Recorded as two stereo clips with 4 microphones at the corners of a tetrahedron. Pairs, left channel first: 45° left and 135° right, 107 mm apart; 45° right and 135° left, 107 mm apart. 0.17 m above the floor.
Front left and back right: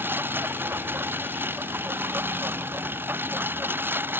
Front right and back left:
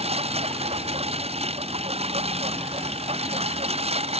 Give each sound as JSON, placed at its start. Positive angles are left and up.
{"t": 0.0, "sound": "a lawn mower", "azimuth_deg": 155}